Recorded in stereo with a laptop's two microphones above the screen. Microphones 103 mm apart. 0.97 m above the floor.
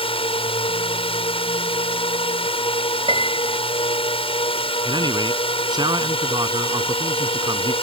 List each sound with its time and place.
0.0 s a drone: 60° left (ahead or behind)
3.1 s a piano: 55° right (ahead or behind)
4.8 s a man speaking: 40° right (ahead or behind)